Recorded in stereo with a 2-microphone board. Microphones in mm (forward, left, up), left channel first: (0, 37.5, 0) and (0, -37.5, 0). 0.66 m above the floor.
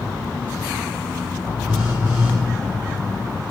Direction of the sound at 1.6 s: 15° right (ahead or behind).